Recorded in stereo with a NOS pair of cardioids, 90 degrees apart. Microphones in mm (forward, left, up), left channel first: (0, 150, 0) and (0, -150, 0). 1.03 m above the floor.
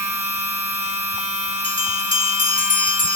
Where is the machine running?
10° right, 1.3 m.